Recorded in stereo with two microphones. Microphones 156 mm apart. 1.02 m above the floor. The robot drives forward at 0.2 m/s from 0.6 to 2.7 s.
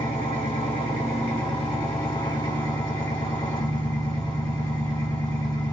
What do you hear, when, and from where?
0.0 s an engine running: 35° left (ahead or behind), 1.5 m; by 5.7 s 30° left (ahead or behind), 1.9 m